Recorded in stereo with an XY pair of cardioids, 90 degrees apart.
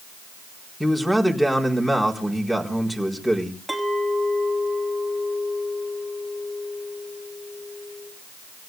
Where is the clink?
5° left, 5 m.